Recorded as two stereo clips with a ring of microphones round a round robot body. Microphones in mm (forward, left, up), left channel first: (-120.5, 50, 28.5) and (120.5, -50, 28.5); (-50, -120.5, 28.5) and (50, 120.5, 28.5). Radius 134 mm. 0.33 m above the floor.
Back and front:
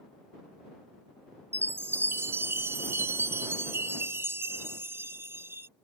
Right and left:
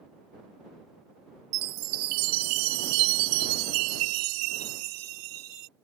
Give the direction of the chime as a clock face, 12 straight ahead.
10 o'clock.